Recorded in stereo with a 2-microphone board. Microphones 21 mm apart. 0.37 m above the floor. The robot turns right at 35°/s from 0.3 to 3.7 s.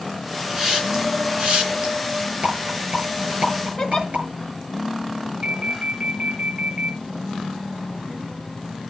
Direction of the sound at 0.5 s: 20° right (ahead or behind).